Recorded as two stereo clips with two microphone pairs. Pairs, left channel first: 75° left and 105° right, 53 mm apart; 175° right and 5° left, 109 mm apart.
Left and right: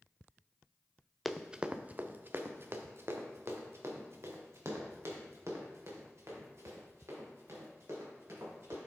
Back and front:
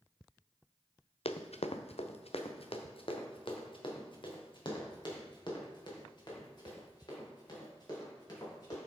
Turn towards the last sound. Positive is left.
turn(degrees=-125)